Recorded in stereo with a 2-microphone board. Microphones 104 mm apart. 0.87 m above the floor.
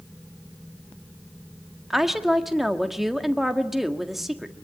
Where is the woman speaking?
Centre (ahead or behind), 1.7 m.